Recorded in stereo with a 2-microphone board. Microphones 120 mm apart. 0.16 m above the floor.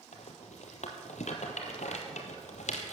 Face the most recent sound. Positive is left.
turn(degrees=75)  # may be behind; listen again after turning